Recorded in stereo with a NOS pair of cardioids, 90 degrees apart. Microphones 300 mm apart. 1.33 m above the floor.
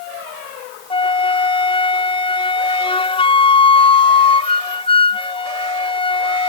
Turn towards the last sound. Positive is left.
turn(degrees=20)